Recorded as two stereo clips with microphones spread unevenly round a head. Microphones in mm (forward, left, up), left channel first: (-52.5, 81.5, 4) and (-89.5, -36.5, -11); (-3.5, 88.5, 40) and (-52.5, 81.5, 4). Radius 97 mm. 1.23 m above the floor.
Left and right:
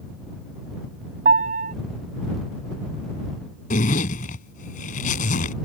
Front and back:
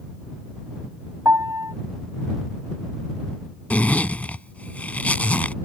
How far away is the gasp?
I don't hear a gasp.